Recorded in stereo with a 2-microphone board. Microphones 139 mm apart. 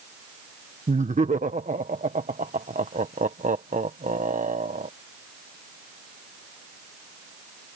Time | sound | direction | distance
0.9 | laughter | 65° right (ahead or behind) | ?